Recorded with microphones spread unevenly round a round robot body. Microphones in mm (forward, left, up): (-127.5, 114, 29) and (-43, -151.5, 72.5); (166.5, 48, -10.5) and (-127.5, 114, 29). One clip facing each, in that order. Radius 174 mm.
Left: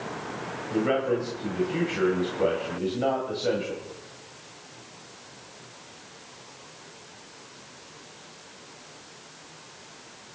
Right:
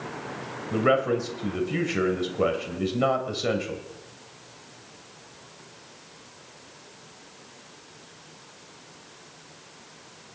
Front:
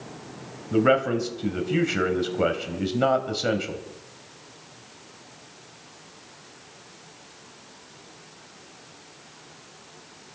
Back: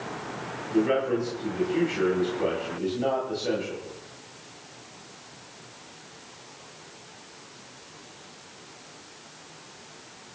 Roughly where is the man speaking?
Ahead right.